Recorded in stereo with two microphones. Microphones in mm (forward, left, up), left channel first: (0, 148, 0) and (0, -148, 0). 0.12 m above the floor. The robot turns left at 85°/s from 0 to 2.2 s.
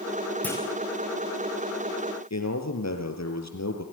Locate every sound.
0.4 s a clunk: 5° left (ahead or behind), 3.5 m; by 0.6 s 20° left (ahead or behind), 3.5 m
2.3 s a man speaking: 65° left (ahead or behind), 4 m